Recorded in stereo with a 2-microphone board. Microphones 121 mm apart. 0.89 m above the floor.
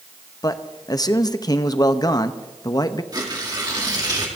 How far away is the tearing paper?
About 2 m.